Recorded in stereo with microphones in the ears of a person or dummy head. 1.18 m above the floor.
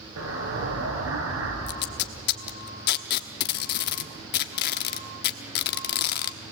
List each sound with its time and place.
0.2 s an explosion: 80° right, 5 m
1.7 s tape being pulled: 55° left (ahead or behind), 1.2 m